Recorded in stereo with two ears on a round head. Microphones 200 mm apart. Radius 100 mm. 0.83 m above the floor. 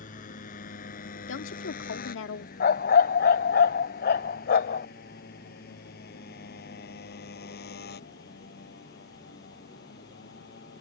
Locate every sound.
0.0 s a motorcycle: 35° left (ahead or behind); by 10.8 s 45° left (ahead or behind)
1.3 s a woman speaking: 60° left (ahead or behind)
2.6 s a dog barking: 45° left (ahead or behind)